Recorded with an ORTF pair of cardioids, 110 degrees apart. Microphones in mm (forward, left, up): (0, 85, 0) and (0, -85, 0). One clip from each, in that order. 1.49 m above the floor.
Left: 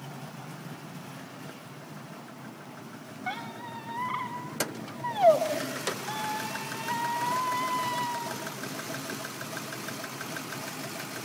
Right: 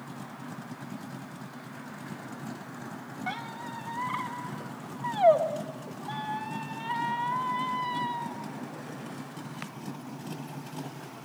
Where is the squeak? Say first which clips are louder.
Even; straight ahead, 2.5 m.